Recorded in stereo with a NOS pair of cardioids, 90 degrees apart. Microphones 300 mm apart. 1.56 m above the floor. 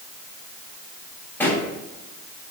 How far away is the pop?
About 3 m.